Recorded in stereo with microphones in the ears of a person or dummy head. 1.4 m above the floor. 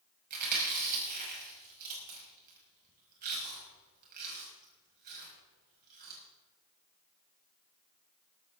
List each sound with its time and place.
0.3 s chewing: 50° right (ahead or behind), 5.5 m